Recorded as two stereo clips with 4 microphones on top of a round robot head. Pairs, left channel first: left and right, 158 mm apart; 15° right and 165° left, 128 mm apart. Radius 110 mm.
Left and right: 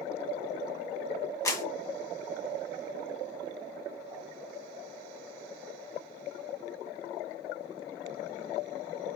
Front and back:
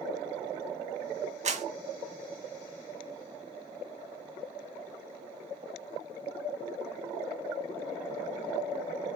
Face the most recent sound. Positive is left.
turn(degrees=155)